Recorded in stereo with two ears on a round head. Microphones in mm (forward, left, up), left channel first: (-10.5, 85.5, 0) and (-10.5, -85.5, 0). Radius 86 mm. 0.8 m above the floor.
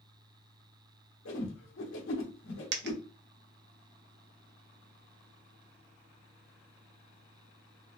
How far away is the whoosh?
About 1.3 m.